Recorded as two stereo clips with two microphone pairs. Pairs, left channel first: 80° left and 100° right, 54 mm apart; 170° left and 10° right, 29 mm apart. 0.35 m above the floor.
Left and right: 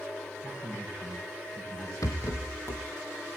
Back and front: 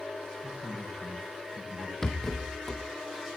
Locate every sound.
0.4 s a man speaking: 30° right, 9 m
2.0 s a rattle: 95° left, 2.5 m